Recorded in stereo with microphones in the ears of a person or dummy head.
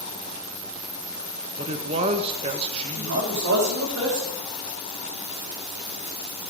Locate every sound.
1.6 s a man speaking: 30° right (ahead or behind), 0.8 m
3.0 s a man speaking: 60° right (ahead or behind), 4 m